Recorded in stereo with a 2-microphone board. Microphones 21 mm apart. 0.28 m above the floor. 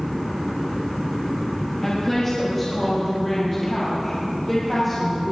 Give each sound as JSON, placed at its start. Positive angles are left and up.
{"t": 1.8, "sound": "a woman speaking", "side_deg": 15, "distance_m": 5.0}